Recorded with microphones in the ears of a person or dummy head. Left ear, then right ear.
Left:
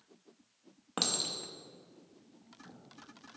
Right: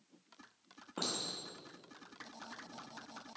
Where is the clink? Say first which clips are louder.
Left 6 dB; 50° left (ahead or behind), 1.0 m.